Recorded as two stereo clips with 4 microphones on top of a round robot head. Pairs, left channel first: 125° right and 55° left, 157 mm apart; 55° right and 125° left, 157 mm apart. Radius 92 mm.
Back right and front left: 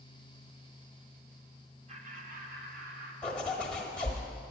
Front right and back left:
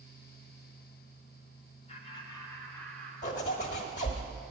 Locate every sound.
1.9 s laughter: straight ahead, 1.6 m; by 3.1 s 30° left, 2.5 m
3.2 s a zipper: 45° right, 1.1 m